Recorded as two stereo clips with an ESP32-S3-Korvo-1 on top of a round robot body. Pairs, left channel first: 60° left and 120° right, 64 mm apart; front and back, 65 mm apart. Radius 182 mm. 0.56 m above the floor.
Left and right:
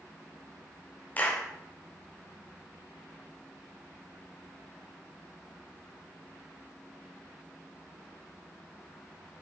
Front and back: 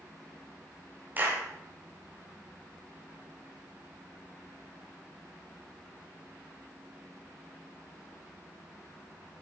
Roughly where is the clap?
Behind left.